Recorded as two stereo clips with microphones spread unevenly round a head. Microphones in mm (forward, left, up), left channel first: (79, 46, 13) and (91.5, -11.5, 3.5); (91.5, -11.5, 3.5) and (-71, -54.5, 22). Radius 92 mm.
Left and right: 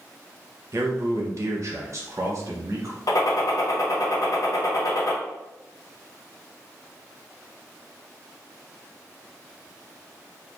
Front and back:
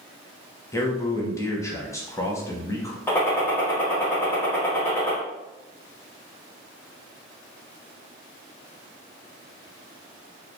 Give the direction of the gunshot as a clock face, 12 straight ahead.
9 o'clock.